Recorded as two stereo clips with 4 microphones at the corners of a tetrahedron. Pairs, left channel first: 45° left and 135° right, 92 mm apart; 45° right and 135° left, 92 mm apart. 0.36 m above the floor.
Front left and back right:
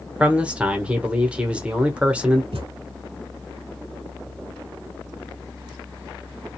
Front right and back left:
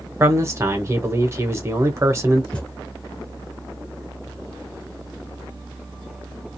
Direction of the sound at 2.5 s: 125° right.